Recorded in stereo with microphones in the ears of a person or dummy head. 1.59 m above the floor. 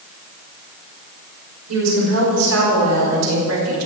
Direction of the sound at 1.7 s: 80° right.